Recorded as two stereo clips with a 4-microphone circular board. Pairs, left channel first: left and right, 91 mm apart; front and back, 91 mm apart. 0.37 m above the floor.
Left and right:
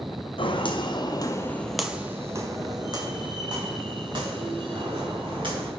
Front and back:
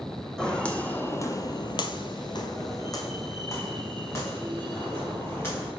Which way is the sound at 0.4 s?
80° left.